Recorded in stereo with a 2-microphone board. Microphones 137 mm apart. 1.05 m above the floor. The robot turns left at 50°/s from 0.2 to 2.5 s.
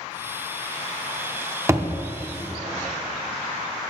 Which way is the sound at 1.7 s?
20° right (ahead or behind).